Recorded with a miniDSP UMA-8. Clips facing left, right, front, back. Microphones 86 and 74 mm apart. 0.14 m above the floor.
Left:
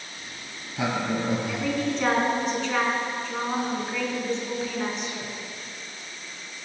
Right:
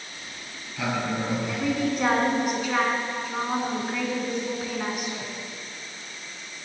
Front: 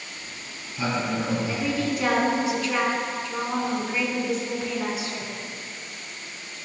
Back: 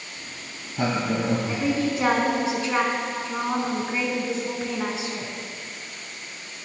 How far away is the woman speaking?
About 1.1 m.